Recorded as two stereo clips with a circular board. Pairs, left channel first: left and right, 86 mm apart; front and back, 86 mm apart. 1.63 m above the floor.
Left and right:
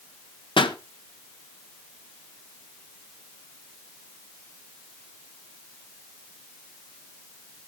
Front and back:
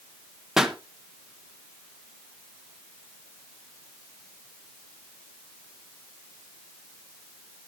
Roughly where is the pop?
Left.